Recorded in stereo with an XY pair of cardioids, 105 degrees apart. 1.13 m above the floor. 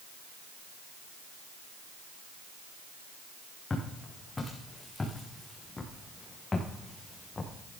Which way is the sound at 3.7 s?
25° left.